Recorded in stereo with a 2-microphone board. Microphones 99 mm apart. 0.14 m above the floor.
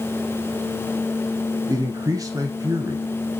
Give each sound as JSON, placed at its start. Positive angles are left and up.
{"t": 1.7, "sound": "a man speaking", "side_deg": -35, "distance_m": 1.5}